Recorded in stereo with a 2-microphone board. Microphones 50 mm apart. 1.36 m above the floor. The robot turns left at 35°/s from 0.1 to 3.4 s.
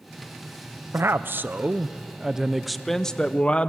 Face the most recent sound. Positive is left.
turn(degrees=155)